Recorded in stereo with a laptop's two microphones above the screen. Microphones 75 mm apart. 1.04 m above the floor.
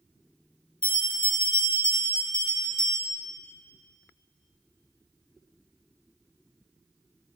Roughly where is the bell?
Left.